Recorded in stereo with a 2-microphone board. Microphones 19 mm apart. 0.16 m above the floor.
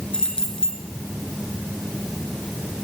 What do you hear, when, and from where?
0.1 s keys jangling: 45° left (ahead or behind), 1.7 m